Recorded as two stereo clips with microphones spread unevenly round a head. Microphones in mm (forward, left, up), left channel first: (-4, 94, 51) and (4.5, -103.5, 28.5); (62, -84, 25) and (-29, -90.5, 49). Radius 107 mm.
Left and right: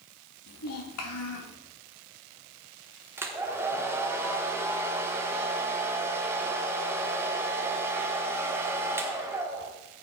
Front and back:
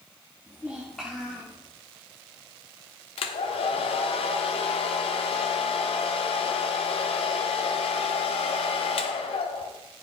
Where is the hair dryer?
5° right, 1.1 m.